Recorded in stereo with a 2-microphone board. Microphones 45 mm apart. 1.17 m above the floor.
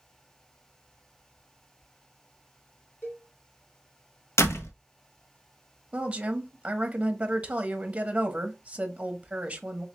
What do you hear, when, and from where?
3.0 s a cowbell: 65° left (ahead or behind), 1.8 m
4.4 s a door slam: 85° left, 1.1 m
5.9 s a woman speaking: 25° right (ahead or behind), 1.1 m